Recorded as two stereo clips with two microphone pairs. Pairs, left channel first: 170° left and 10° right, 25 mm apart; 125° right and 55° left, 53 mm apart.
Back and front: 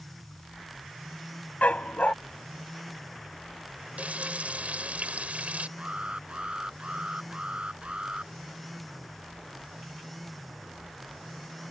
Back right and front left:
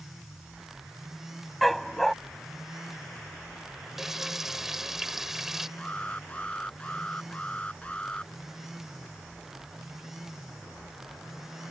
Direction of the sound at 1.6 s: 150° left.